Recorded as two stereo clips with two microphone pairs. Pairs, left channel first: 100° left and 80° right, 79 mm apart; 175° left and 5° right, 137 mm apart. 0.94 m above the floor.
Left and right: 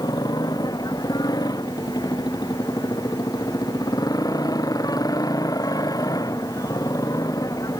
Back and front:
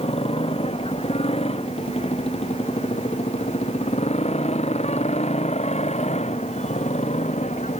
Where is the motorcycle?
130° left; by 7.8 s 140° left.